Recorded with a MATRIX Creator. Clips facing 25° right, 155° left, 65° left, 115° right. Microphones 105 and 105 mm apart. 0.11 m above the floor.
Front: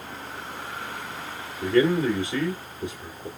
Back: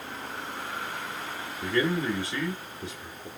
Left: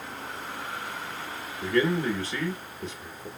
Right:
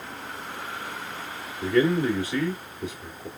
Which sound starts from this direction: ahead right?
A man speaking, at 1.6 s.